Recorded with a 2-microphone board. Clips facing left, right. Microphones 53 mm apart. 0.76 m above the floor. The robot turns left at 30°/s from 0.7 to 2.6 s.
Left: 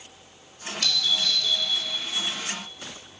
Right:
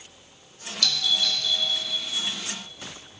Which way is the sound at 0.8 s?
25° left (ahead or behind).